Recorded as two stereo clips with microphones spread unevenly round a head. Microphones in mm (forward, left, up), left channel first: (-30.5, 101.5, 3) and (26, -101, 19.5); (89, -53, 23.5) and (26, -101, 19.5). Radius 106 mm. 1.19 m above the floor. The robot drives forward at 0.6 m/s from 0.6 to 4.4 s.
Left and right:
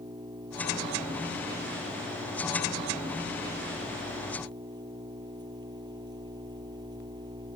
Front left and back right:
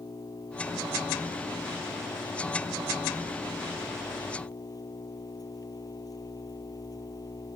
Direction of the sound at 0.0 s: 5° right.